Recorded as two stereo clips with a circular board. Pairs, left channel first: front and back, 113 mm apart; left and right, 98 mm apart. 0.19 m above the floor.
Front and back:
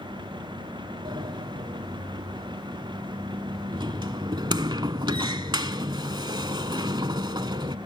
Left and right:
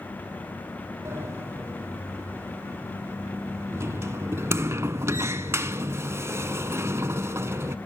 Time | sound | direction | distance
1.1 | a sliding door | 145° right | 0.7 m